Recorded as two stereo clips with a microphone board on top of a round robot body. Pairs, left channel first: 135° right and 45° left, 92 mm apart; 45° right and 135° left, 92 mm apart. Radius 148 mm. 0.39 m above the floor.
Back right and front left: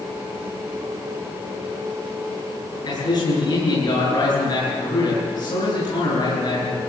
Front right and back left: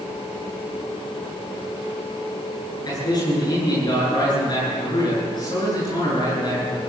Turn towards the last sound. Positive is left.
turn(degrees=-90)